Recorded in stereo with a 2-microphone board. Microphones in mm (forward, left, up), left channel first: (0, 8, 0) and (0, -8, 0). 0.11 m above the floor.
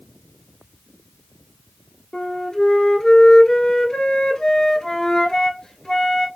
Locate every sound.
2.1 s a flute: 40° left (ahead or behind), 0.7 m